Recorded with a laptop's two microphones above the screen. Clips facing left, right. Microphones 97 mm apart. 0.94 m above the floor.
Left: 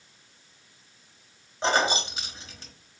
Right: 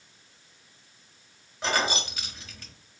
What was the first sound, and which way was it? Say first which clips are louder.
Keys jangling: left 3 dB; 25° left (ahead or behind).